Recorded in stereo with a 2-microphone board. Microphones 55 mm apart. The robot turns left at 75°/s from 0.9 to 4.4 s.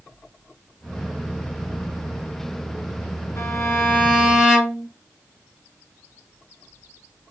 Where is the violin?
70° left, 3 m; by 4.9 s 5° right, 3 m.